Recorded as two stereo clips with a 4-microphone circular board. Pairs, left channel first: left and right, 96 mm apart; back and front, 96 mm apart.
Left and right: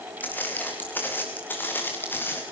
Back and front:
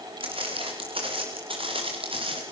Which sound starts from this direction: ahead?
Footsteps, at 0.2 s.